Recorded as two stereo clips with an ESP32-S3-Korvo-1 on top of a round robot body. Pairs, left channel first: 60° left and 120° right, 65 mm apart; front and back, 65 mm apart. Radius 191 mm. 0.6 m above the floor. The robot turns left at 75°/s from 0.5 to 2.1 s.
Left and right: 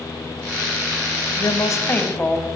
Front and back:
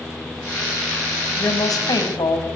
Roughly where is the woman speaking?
Ahead left.